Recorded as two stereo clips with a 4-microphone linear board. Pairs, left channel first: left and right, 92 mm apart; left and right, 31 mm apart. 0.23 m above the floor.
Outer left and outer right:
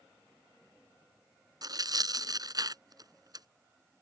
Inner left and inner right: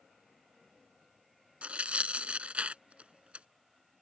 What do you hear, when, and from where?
1.6 s tearing paper: 45° right (ahead or behind)